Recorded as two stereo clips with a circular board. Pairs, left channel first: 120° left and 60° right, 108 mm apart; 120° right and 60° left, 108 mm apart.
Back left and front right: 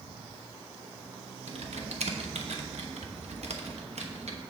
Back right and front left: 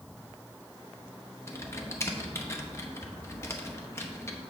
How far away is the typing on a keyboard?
About 0.9 m.